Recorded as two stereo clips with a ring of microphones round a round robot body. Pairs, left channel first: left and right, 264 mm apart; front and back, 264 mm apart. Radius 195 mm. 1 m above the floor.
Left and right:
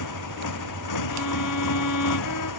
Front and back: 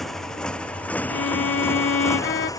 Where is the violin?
40° left.